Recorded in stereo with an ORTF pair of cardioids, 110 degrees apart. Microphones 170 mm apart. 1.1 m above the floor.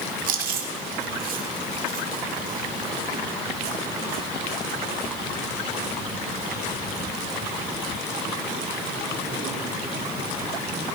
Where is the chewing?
55° right, 1.6 m.